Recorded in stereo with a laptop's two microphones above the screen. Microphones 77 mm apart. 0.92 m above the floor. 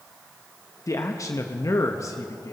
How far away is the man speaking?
About 0.9 m.